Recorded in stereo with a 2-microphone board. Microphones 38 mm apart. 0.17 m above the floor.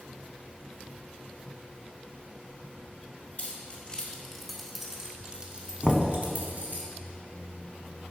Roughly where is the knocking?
Centre.